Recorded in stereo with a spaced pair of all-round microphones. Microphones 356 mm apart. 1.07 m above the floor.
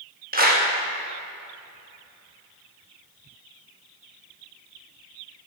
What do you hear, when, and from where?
0.3 s a clap: 25° right (ahead or behind), 1.1 m